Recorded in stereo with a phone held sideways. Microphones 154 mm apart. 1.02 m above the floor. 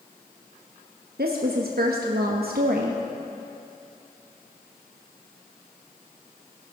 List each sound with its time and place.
1.2 s a woman speaking: 80° right, 0.8 m